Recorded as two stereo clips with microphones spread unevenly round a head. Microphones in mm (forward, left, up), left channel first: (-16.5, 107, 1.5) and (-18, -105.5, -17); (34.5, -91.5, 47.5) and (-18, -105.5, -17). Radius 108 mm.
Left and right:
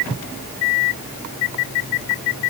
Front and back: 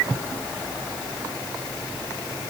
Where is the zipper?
I don't hear a zipper.